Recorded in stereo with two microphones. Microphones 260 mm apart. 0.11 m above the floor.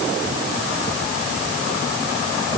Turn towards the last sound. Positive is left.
No sound to turn to.